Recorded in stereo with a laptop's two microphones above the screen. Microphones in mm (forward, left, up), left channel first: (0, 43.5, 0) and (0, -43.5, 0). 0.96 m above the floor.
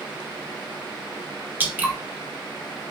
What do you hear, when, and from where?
1.6 s dripping: 20° right (ahead or behind), 0.7 m